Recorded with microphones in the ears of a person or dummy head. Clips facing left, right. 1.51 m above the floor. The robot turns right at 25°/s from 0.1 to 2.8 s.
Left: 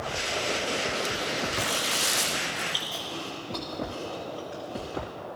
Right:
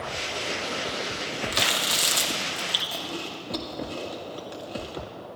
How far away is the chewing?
About 1.4 m.